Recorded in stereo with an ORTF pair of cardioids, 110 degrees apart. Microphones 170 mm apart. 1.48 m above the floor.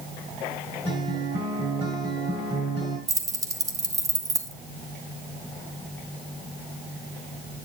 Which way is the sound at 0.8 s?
30° right.